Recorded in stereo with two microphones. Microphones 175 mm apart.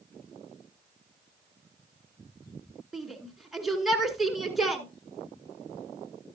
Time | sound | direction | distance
2.9 | a shout | centre (ahead or behind) | 1.9 m